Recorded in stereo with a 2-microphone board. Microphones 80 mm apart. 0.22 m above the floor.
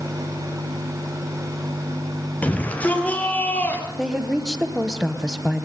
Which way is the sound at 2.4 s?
20° left (ahead or behind).